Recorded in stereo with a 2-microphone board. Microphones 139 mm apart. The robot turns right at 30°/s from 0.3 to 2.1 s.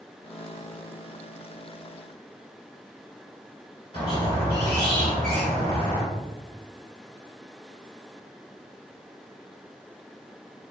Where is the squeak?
35° left (ahead or behind), 1.8 m.